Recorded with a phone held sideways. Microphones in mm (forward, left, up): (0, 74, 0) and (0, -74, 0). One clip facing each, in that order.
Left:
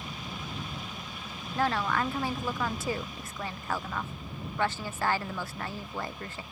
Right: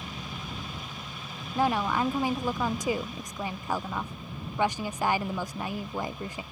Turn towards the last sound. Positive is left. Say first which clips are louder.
# right 2 dB
turn(degrees=-15)  # may be behind; listen again after turning